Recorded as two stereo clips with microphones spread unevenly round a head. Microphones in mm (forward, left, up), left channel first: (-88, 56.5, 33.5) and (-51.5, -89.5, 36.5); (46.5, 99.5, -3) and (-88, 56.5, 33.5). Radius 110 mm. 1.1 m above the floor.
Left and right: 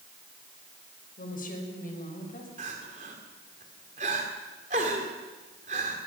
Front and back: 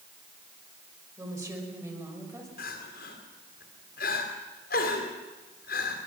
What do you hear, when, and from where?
1.2 s a woman speaking: 130° left, 6 m
2.6 s crying: 20° right, 2.5 m